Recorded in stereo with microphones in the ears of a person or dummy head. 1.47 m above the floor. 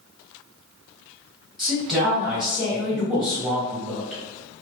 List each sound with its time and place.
1.6 s a woman speaking: centre (ahead or behind), 1.4 m